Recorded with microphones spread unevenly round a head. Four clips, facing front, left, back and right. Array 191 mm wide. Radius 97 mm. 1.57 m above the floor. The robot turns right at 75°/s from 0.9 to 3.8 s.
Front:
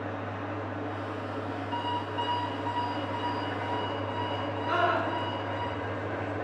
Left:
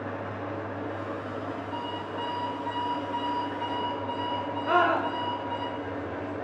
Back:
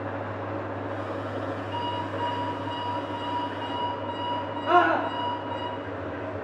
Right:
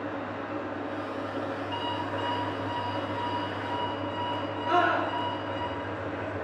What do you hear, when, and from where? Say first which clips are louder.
0.0 s an engine running: even, back 3 dB; 145° left, 5 m; by 6.4 s straight ahead, 5 m
1.7 s an alarm clock: right 2 dB, front 1 dB; 45° right, 4.5 m; by 5.7 s 110° left, 4.5 m
4.7 s a scream: left 1 dB, back 7 dB; 170° left, 1.7 m